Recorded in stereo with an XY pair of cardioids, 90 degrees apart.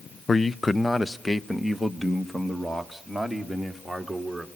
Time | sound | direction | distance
0.3 | a man speaking | 35° left | 0.6 m